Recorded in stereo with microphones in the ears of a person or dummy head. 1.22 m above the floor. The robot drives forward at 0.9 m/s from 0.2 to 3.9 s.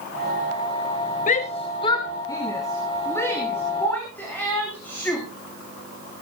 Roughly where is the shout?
Left.